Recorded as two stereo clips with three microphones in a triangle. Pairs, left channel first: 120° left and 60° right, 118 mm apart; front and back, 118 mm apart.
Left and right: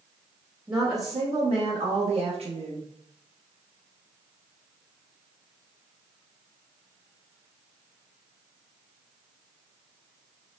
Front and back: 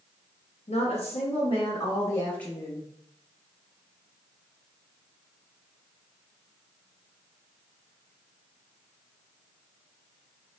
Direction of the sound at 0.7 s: Straight ahead.